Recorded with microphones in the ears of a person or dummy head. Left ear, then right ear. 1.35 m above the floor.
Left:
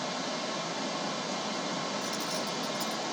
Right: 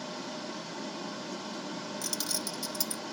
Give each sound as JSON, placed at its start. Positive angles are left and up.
{"t": 0.0, "sound": "running water", "side_deg": 45, "distance_m": 2.5}
{"t": 2.0, "sound": "keys jangling", "side_deg": -25, "distance_m": 0.9}